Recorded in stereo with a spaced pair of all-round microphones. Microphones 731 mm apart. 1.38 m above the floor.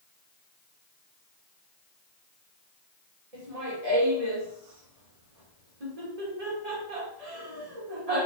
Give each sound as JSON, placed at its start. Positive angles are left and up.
{"t": 3.3, "sound": "laughter", "side_deg": -60, "distance_m": 1.9}